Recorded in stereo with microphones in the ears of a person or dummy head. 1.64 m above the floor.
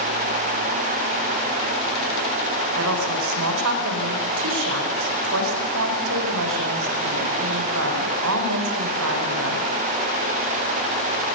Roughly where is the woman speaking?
Right.